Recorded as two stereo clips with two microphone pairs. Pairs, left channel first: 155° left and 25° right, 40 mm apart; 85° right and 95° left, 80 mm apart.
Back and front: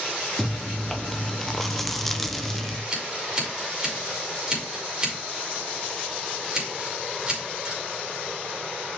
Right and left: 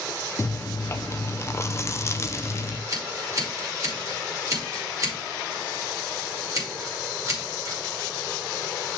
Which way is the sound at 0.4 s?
125° right.